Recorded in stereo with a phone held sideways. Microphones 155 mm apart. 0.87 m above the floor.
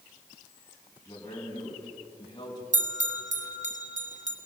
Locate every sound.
1.1 s a man speaking: 20° left (ahead or behind), 7.5 m; by 2.6 s 25° left (ahead or behind), 7.5 m
2.7 s a bell: 55° right (ahead or behind), 1.7 m